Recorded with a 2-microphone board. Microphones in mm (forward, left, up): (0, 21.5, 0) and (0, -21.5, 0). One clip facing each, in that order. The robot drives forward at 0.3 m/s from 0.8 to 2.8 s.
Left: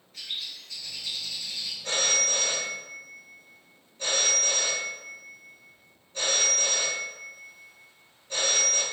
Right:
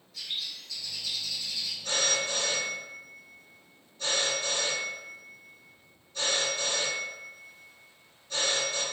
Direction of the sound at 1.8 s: 50° left (ahead or behind).